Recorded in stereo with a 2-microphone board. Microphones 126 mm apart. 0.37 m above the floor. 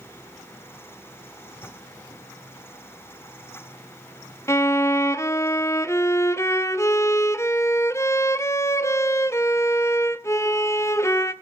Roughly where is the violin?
Left.